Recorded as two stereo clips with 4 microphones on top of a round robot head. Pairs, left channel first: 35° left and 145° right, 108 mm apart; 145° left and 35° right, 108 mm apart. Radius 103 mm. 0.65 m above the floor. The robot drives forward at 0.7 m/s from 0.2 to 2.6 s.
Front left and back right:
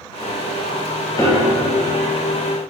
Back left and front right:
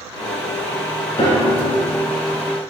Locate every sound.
1.2 s a piano: 100° left, 2.5 m; by 1.7 s 105° left, 3 m